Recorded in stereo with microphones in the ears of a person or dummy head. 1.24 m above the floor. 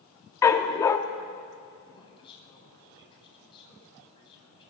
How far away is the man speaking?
About 9 m.